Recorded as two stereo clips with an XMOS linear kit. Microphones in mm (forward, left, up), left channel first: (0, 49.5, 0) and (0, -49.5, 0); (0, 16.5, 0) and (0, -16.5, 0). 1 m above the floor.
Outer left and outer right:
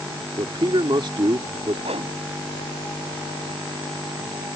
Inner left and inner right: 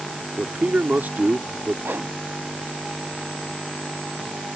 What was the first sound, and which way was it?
A man speaking, 55° right (ahead or behind).